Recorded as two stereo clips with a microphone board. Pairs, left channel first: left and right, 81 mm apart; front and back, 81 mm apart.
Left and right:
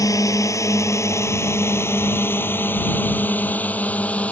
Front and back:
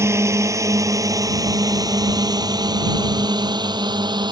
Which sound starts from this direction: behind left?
A drone, at 0.0 s.